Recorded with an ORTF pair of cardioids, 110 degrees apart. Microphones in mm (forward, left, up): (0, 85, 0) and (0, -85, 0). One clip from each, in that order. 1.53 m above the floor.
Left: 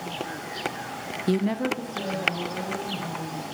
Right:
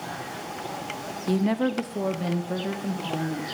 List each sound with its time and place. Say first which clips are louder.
1.3 s a woman speaking: right 1 dB; 20° left, 0.6 m; by 3.4 s 80° right, 3 m